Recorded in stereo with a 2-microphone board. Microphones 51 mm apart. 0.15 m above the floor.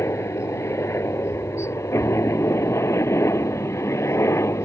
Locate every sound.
0.0 s a helicopter: 60° left (ahead or behind); by 4.7 s 65° left (ahead or behind)